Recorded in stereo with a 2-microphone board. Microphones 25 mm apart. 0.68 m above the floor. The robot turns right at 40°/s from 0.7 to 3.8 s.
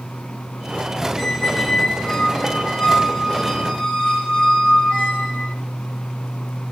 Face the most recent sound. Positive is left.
turn(degrees=135)